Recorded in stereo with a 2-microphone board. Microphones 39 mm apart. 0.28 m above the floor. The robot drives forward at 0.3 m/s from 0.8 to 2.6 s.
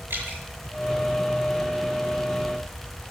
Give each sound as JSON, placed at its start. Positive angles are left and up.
{"t": 0.1, "sound": "dripping", "side_deg": -60, "distance_m": 6.5}